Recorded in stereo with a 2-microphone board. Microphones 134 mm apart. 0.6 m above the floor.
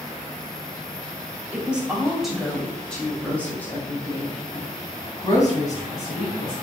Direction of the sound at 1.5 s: 10° right (ahead or behind).